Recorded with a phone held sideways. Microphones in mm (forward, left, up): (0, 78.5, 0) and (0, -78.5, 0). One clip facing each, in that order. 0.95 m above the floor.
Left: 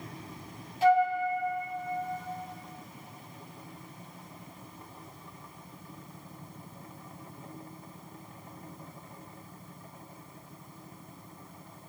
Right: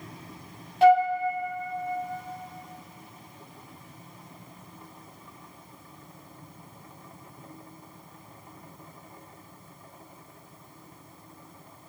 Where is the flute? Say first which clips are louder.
Right 5 dB; 70° right (ahead or behind), 0.8 m.